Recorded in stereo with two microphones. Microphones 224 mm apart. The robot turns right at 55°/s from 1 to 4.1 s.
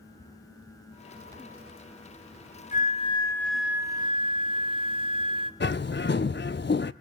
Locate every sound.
2.7 s a flute: 130° left, 0.9 m; by 5.5 s 150° right, 0.9 m
5.6 s a bird: 50° left (ahead or behind), 0.5 m